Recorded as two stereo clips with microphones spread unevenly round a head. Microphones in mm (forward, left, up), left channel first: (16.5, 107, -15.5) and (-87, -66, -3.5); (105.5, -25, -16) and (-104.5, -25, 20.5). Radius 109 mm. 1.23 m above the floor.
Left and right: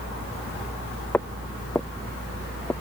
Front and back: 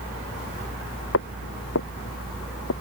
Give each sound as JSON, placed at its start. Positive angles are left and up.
{"t": 1.1, "sound": "footsteps", "azimuth_deg": -25}